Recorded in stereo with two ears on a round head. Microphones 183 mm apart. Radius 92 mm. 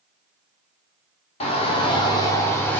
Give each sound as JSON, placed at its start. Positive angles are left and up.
{"t": 1.4, "sound": "a shout", "side_deg": 30, "distance_m": 0.9}